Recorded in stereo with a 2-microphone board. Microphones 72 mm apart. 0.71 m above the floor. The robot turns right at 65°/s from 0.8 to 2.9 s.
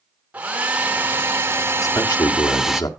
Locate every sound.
0.3 s a hair dryer: 140° right, 0.9 m; by 2.8 s 10° right, 0.9 m
1.8 s a man speaking: 50° left, 1.5 m; by 2.9 s 120° left, 1.5 m